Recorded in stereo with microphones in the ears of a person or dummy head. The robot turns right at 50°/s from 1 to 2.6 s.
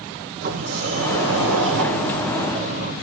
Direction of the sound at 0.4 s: 125° right.